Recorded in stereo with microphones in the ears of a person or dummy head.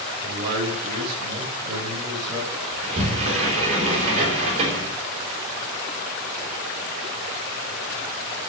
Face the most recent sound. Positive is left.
turn(degrees=-35)  # may be behind; listen again after turning